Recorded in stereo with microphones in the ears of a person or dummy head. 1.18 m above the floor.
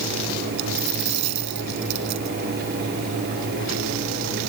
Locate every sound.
0.6 s a dropped coin: 65° right (ahead or behind)